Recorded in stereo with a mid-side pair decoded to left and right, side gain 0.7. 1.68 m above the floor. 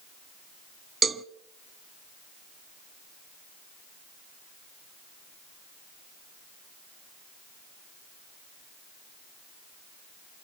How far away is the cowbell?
About 0.8 m.